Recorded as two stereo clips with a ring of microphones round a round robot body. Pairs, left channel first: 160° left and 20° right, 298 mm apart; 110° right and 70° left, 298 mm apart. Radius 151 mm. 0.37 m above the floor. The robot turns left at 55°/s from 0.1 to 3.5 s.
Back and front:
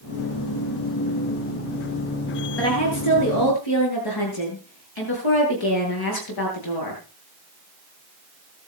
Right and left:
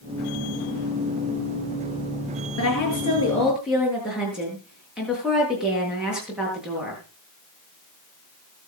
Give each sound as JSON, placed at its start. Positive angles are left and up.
{"t": 2.6, "sound": "a woman speaking", "azimuth_deg": -155, "distance_m": 8.5}